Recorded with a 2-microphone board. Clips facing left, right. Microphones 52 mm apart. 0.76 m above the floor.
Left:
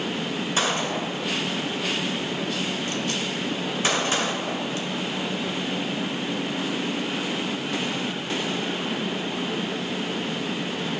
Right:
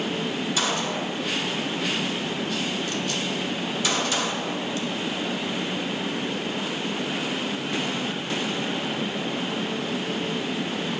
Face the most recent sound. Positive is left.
turn(degrees=35)  # may be behind; listen again after turning